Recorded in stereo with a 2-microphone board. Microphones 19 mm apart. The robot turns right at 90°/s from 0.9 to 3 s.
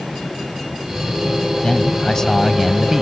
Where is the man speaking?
80° left; by 3.0 s 155° right.